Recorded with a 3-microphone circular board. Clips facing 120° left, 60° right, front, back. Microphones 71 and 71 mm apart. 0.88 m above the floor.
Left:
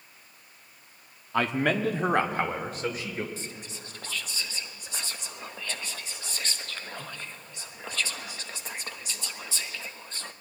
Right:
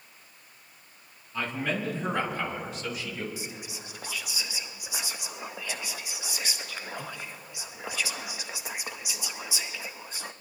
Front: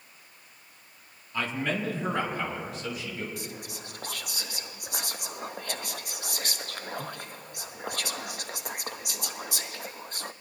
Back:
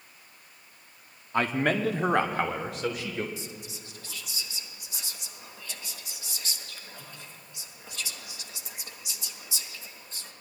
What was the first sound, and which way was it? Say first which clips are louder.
A man speaking: left 5 dB, back 4 dB; 135° left.